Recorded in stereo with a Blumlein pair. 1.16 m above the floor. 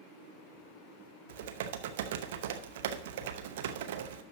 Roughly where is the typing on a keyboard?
Ahead right.